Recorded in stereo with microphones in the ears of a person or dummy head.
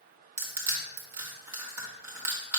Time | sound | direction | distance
0.4 | crushing | 15° right (ahead or behind) | 2.0 m